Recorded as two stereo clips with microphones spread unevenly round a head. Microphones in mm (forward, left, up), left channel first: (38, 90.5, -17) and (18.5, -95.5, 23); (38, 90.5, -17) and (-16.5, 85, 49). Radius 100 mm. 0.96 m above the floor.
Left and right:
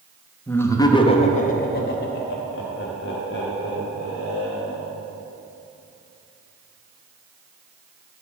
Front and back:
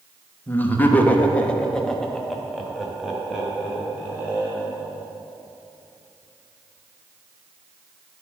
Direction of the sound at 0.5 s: 5° left.